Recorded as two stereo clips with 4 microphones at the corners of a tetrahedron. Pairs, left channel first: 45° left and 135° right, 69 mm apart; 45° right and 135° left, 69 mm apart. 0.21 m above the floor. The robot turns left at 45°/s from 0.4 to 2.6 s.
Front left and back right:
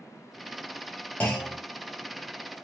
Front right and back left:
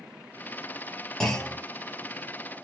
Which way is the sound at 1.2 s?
25° left.